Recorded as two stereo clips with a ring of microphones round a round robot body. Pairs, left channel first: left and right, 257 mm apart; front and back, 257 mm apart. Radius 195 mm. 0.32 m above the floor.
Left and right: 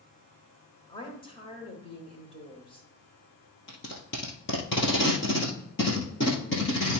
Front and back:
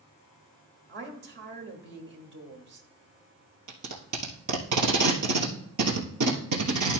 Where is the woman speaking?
155° left, 1.6 m.